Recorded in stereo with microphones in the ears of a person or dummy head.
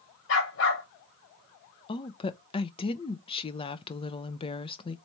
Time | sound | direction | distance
0.3 | a dog barking | 70° left (ahead or behind) | 2.0 m
1.9 | a woman speaking | 30° left (ahead or behind) | 0.5 m